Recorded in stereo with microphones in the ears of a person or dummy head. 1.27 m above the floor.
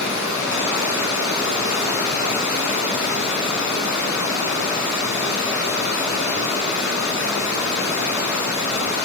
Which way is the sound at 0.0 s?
65° left (ahead or behind).